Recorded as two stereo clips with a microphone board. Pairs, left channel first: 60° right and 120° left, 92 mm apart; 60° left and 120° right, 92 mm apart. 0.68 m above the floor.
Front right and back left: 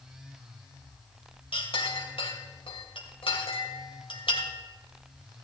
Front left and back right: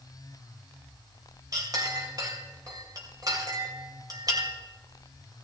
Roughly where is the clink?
Right.